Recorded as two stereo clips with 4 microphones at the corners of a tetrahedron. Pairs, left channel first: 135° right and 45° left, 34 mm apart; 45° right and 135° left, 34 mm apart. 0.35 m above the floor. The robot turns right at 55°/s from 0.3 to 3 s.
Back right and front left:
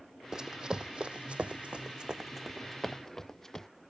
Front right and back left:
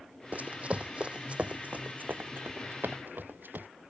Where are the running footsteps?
110° left; by 3.7 s 150° left.